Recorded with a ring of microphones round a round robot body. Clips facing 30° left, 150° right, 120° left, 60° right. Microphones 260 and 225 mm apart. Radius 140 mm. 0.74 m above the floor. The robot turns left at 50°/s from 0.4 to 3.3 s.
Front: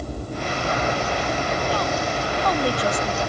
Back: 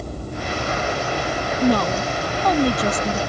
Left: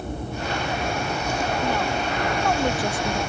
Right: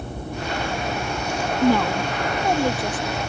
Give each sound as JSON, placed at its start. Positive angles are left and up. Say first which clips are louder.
{"t": 1.6, "sound": "a woman speaking", "louder": "back 6 dB, right 6 dB", "azimuth_deg": -90}